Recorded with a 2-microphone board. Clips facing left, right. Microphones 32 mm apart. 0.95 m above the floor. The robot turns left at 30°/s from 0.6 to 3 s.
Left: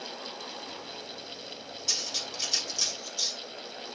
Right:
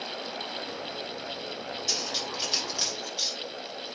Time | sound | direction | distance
1.9 | cutlery clinking | 5° left (ahead or behind) | 3.5 m